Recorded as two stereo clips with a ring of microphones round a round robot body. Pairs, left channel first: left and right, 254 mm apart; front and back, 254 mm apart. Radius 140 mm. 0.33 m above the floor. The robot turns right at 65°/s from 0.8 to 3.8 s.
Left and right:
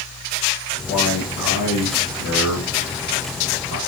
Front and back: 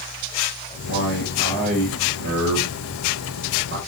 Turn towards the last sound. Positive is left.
turn(degrees=-130)